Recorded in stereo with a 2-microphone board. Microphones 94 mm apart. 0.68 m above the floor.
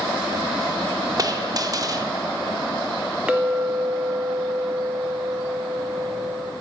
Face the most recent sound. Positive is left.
turn(degrees=-10)  # may be behind; listen again after turning